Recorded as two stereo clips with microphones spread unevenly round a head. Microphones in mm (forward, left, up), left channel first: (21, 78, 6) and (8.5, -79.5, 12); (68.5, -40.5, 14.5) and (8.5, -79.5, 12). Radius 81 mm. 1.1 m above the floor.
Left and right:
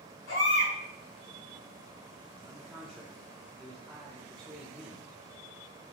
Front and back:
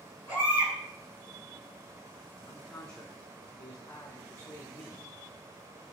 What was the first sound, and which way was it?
A baby crying, 105° left.